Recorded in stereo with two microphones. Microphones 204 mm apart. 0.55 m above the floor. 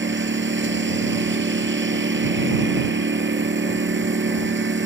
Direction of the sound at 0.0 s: 70° right (ahead or behind).